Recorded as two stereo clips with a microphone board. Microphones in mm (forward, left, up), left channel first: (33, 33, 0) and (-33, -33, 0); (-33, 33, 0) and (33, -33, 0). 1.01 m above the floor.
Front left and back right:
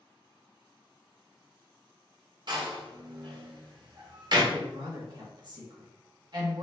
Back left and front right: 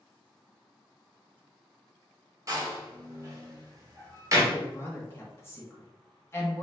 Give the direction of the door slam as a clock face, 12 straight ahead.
3 o'clock.